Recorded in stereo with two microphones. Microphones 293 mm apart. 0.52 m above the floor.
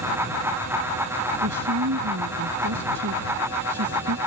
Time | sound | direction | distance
1.4 | a woman speaking | 70° right (ahead or behind) | ?